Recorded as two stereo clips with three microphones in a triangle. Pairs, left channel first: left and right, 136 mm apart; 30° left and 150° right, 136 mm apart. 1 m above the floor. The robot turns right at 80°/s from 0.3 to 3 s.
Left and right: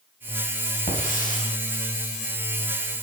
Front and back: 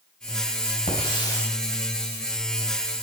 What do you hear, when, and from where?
0.9 s a hiss: 60° left, 4 m; by 1.5 s 110° left, 4 m